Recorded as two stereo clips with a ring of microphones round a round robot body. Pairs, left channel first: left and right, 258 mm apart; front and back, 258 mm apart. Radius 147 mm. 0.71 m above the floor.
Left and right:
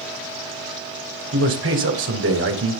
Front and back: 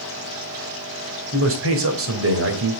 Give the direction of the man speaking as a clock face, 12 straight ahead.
5 o'clock.